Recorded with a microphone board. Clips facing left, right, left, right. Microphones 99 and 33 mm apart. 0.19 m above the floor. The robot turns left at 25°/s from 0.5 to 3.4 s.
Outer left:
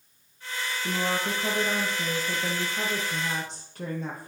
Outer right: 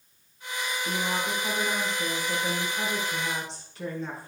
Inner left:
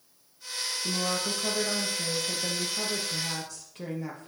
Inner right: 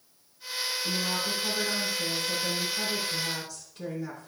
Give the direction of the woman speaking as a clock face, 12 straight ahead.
8 o'clock.